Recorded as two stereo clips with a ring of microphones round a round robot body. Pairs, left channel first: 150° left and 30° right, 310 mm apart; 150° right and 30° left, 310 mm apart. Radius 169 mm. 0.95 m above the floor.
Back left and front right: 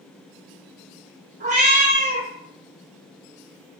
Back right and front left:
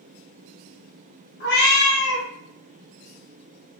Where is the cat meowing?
95° right, 0.6 m.